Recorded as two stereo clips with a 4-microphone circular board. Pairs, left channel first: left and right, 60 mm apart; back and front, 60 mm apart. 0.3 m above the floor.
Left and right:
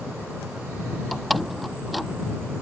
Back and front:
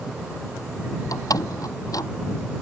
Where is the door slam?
Straight behind.